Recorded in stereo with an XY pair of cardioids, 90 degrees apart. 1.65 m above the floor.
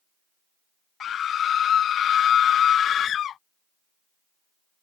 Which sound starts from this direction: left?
A scream, at 1.0 s.